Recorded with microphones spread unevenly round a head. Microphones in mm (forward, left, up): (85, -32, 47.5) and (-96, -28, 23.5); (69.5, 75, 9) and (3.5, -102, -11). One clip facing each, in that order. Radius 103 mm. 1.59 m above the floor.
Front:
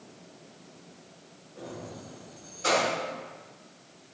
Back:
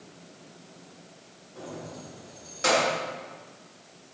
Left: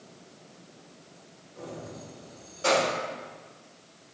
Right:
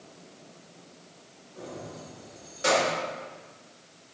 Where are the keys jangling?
175° right, 3.5 m; by 3.0 s 165° left, 1.8 m.